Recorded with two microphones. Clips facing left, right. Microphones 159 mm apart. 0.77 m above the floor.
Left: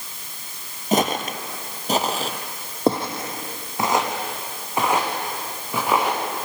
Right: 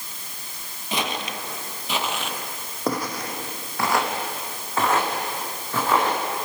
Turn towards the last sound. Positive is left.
turn(degrees=15)  # may be behind; listen again after turning